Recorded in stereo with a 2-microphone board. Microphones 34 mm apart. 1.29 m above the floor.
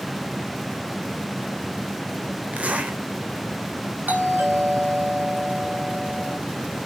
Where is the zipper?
40° right (ahead or behind), 3 m.